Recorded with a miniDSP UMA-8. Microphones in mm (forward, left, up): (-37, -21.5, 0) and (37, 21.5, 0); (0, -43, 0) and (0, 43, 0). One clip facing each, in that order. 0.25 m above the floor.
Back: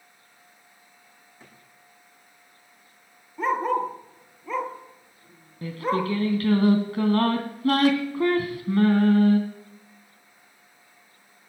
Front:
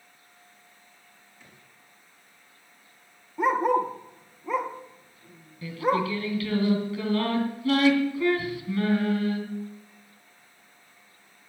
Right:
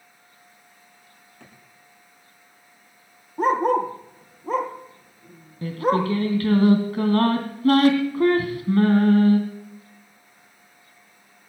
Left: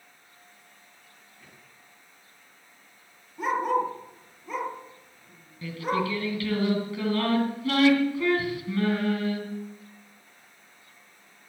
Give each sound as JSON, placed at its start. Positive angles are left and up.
{"t": 1.4, "sound": "a drawer", "azimuth_deg": -100, "distance_m": 7.5}
{"t": 3.4, "sound": "a dog barking", "azimuth_deg": -50, "distance_m": 2.0}
{"t": 5.6, "sound": "singing", "azimuth_deg": -120, "distance_m": 2.5}